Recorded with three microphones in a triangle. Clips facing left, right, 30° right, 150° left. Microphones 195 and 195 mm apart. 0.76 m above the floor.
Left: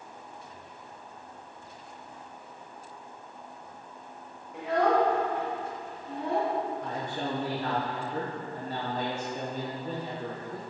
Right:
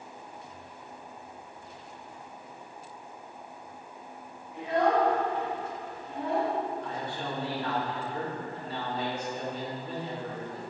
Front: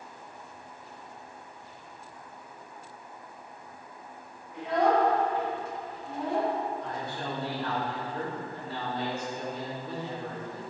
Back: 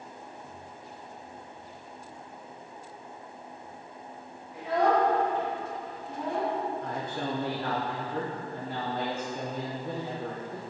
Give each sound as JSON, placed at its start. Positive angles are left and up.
{"t": 4.5, "sound": "a child speaking", "azimuth_deg": 70, "distance_m": 2.0}
{"t": 6.8, "sound": "a man speaking", "azimuth_deg": 125, "distance_m": 0.8}